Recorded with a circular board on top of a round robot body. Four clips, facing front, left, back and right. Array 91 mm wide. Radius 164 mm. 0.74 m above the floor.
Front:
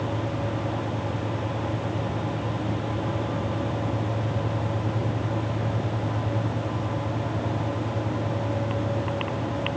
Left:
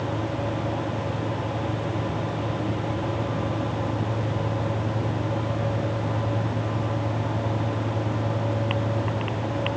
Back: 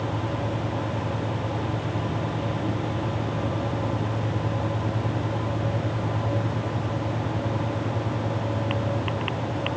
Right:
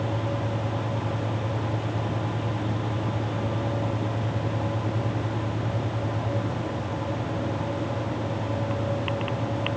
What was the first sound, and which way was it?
Only background noise.